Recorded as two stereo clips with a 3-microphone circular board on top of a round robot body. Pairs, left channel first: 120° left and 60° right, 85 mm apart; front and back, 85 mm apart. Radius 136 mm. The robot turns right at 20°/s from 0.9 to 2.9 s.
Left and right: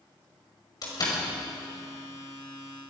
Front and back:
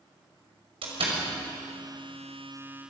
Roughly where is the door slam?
Behind.